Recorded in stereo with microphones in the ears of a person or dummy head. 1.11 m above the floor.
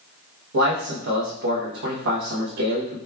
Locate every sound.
0.5 s a man speaking: 75° right (ahead or behind), 0.9 m